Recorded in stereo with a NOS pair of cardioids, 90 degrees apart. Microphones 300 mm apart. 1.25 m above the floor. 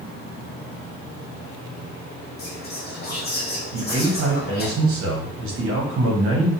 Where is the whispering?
35° left, 1.2 m.